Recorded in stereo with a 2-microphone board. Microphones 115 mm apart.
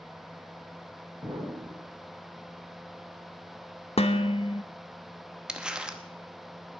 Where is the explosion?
40° right (ahead or behind), 4.5 m.